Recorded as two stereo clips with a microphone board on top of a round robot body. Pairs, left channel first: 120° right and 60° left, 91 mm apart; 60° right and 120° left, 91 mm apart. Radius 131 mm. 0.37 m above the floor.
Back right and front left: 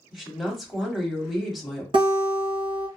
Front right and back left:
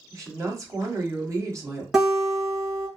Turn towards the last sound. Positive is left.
turn(degrees=35)